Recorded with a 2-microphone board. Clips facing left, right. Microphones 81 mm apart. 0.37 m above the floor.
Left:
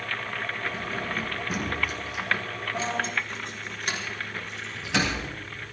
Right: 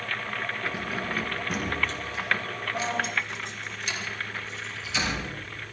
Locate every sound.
0.6 s keys jangling: 15° right (ahead or behind), 3 m; by 5.3 s 70° left (ahead or behind), 4.5 m